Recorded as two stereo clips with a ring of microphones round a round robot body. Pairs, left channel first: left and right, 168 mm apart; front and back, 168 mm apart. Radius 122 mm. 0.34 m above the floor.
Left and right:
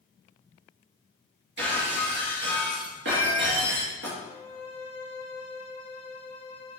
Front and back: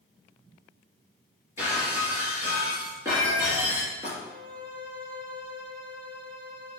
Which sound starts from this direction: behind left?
A violin, at 4.2 s.